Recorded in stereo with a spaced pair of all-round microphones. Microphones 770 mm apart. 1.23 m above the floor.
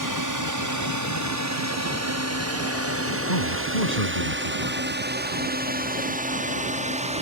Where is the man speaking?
65° left (ahead or behind).